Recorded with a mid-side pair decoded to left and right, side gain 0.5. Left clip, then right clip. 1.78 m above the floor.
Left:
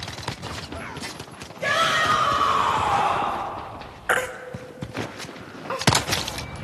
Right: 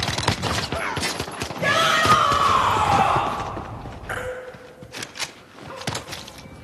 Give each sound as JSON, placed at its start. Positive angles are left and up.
{"t": 1.6, "sound": "a shout", "azimuth_deg": -25, "distance_m": 8.0}
{"t": 4.1, "sound": "a baby crying", "azimuth_deg": 55, "distance_m": 1.7}